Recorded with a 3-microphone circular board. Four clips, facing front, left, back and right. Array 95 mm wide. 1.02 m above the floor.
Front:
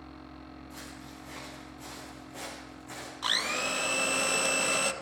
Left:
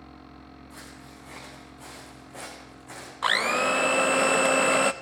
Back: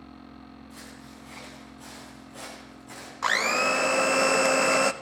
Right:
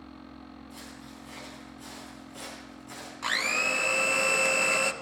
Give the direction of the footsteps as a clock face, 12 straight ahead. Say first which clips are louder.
Even, even; 9 o'clock.